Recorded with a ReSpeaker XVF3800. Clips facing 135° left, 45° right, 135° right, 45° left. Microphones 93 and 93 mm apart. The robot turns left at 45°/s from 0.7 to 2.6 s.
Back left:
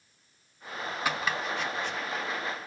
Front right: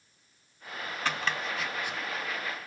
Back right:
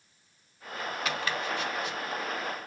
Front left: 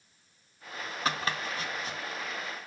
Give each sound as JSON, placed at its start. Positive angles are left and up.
{"t": 1.1, "sound": "chopping", "azimuth_deg": 65, "distance_m": 0.8}